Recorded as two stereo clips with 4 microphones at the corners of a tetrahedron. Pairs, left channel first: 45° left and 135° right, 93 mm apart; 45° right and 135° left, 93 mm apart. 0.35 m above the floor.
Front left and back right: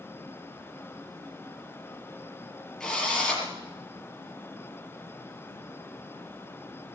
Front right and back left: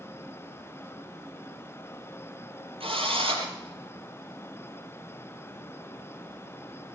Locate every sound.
2.8 s a drill: 130° left, 6 m